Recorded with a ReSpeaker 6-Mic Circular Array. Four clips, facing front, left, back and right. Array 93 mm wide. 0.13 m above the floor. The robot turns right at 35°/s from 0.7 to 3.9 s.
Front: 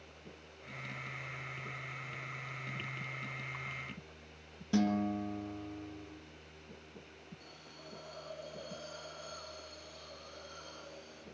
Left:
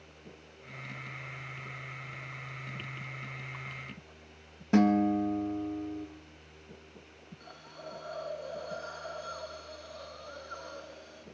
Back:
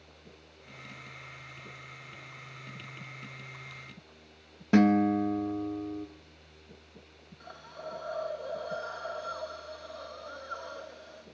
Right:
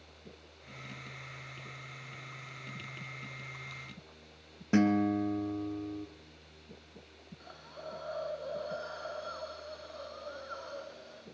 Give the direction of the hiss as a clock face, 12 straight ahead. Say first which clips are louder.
Right 1 dB, back 10 dB; 5 o'clock.